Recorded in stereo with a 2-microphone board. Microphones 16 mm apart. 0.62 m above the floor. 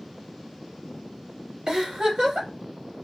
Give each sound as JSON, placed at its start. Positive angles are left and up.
{"t": 1.7, "sound": "a giggle", "side_deg": -55, "distance_m": 1.9}